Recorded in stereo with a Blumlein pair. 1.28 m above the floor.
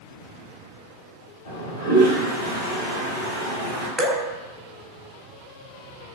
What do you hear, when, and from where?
1.4 s a toilet flushing: 60° left, 1.7 m
4.0 s dripping: 10° right, 0.7 m